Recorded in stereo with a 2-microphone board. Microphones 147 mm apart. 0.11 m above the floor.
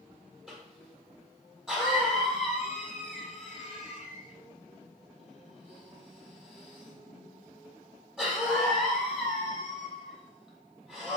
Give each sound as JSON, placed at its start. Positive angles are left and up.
{"t": 0.5, "sound": "a cough", "side_deg": -5, "distance_m": 4.0}